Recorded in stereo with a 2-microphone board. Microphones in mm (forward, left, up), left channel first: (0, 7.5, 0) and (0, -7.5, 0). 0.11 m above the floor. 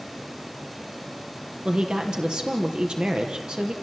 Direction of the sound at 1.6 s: 60° right (ahead or behind).